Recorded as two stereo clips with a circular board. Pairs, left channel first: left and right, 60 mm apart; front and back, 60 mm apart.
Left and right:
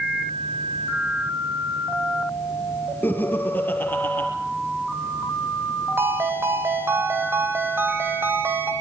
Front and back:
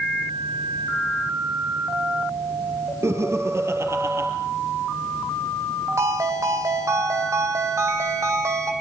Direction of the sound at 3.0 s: 145° left.